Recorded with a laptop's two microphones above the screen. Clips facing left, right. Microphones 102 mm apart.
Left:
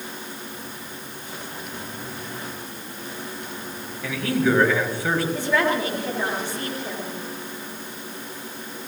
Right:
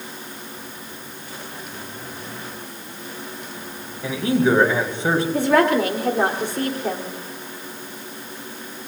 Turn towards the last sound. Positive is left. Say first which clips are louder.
# right 5 dB
turn(degrees=-65)  # may be behind; listen again after turning